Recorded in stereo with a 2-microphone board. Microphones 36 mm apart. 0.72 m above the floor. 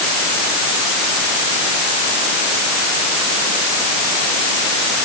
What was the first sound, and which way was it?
Only background noise.